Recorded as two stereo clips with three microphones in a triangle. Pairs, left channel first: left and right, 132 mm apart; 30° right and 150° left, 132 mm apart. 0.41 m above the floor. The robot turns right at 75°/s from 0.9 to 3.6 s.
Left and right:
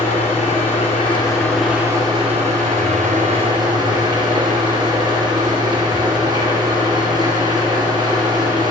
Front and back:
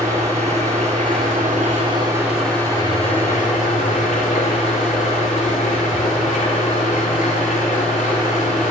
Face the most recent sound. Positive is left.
turn(degrees=-30)